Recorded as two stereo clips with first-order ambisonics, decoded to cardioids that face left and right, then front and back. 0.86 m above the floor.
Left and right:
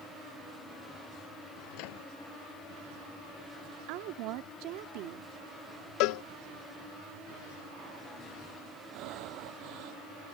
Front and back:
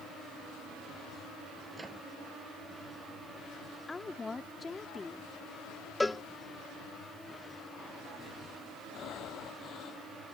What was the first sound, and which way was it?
A microwave, 105° left.